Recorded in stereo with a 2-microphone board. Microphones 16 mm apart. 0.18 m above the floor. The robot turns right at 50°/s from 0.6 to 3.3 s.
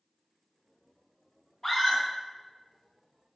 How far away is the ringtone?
No ringtone in this recording.